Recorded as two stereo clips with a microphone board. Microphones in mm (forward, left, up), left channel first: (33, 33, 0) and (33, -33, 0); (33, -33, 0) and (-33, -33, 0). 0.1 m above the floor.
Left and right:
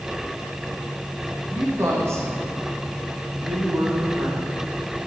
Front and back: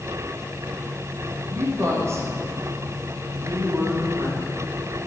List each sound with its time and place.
1.5 s a woman speaking: 140° right, 6 m; by 4.5 s 125° right, 7 m